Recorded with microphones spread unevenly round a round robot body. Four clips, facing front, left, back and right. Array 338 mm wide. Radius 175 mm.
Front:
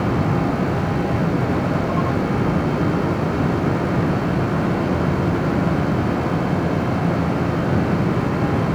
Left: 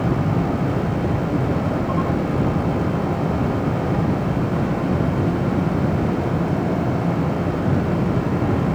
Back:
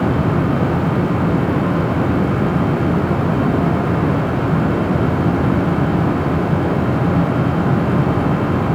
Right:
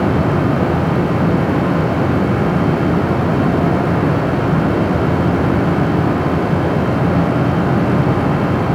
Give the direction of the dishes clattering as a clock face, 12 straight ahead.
No dishes clattering in this recording.